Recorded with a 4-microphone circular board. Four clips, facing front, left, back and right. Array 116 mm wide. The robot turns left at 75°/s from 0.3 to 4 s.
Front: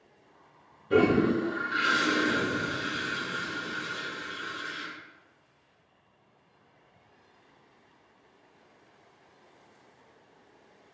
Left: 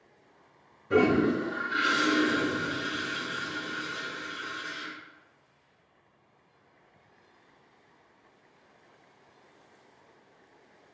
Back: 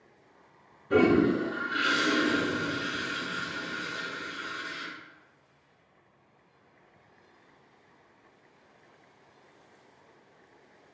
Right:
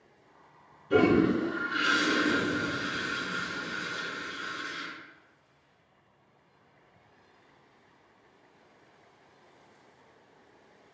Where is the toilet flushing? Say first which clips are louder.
Right 1 dB, back 1 dB; 115° left, 1.4 m; by 4.9 s 115° right, 1.4 m.